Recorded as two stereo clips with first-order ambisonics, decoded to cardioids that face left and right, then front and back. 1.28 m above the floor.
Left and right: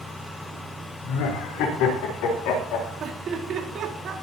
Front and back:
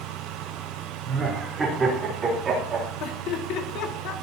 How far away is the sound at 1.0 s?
About 4 m.